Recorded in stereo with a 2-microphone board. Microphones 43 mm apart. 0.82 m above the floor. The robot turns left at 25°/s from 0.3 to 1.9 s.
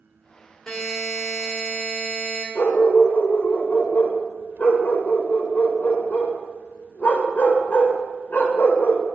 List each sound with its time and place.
0.7 s a buzzer: 10° left, 2.5 m; by 2.5 s 20° right, 2.5 m
2.5 s a dog barking: 40° left (ahead or behind), 1.3 m